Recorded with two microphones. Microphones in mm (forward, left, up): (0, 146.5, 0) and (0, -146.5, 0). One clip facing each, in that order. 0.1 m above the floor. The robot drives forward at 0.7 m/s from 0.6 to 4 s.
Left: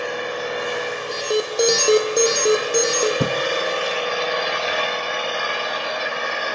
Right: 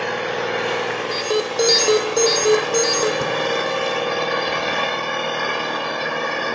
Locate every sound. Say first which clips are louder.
0.0 s an engine running: right 2 dB; 85° right, 4.5 m; by 6.5 s 60° right (ahead or behind), 5.5 m
1.1 s an alarm: even; centre (ahead or behind), 2.5 m
3.2 s a thud: left 1 dB; 45° left (ahead or behind), 0.9 m; by 3.4 s 40° left (ahead or behind), 1.0 m